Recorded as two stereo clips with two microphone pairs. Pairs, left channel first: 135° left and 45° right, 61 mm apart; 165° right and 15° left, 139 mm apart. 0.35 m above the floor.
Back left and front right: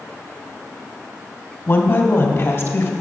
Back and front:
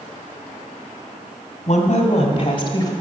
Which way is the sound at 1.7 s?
175° left.